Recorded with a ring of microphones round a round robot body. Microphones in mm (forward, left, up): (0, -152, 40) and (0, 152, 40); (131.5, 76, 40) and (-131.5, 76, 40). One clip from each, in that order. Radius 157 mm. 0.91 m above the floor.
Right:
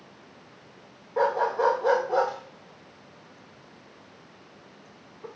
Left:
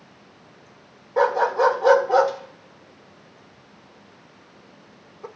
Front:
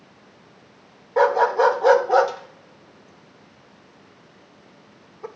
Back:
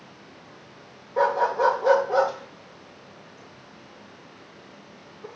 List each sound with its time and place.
1.2 s a dog barking: 25° left, 1.5 m